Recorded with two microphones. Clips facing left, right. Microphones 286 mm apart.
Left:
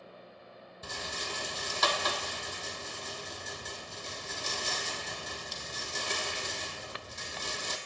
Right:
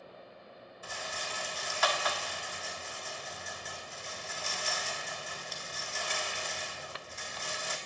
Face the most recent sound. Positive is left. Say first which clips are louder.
# left 3 dB
turn(degrees=50)  # may be behind; listen again after turning